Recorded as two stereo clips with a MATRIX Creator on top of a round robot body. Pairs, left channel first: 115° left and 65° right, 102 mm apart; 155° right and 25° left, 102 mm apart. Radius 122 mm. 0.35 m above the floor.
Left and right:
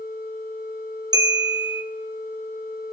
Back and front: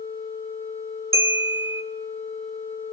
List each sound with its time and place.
1.1 s a bell: 35° right, 2 m